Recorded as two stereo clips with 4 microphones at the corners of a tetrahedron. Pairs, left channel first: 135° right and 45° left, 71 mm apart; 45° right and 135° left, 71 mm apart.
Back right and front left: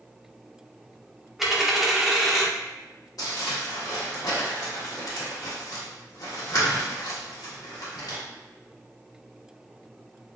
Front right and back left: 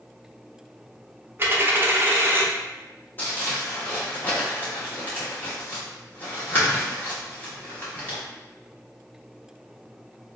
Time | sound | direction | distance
1.4 | a dropped coin | 125° left | 0.6 m
3.2 | crumpling | 105° right | 1.4 m